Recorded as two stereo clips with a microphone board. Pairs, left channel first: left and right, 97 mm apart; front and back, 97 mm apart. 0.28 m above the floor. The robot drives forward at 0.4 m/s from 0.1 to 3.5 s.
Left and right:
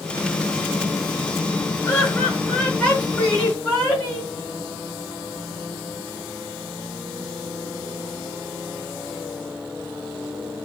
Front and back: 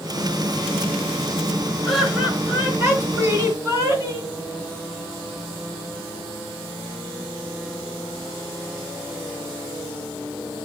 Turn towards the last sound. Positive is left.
turn(degrees=155)